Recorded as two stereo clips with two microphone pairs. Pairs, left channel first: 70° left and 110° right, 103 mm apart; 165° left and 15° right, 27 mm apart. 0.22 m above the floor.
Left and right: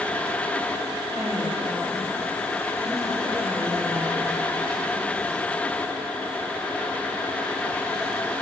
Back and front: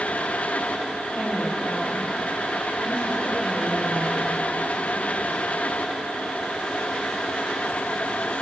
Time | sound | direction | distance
1.1 | a woman speaking | 175° left | 8 m